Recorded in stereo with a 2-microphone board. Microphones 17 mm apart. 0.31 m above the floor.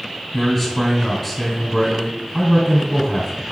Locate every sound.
0.3 s a man speaking: 20° left (ahead or behind), 1.6 m